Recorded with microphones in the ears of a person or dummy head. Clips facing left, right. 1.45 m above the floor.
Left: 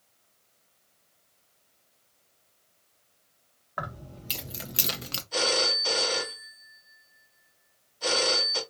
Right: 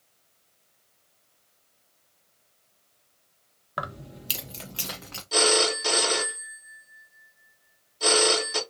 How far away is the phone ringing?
About 1.6 m.